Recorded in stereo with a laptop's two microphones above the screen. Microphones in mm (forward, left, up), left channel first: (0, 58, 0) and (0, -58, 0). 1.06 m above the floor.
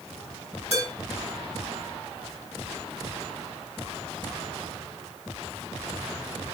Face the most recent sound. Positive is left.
turn(degrees=60)  # may be behind; listen again after turning